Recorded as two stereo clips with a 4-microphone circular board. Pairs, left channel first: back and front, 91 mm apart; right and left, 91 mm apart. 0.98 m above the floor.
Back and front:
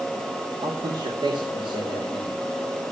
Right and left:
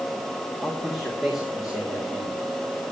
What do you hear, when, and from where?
0.6 s a man speaking: 5° left, 2 m